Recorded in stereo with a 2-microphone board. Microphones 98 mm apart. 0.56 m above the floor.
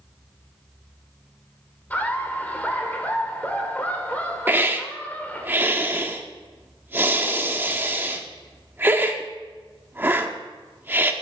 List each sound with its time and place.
1.9 s laughter: 15° left (ahead or behind), 1.6 m
4.5 s a hiss: 20° right (ahead or behind), 0.9 m